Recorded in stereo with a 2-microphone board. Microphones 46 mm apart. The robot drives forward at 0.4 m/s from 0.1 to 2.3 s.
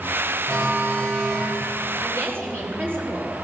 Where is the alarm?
55° right (ahead or behind), 5.5 m.